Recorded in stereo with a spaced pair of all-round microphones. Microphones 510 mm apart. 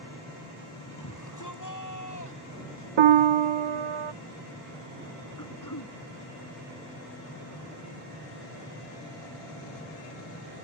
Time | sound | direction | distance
1.0 | a shout | 35° left (ahead or behind) | ?
3.0 | a piano | 65° right (ahead or behind) | ?
5.4 | throat clearing | 40° left (ahead or behind) | ?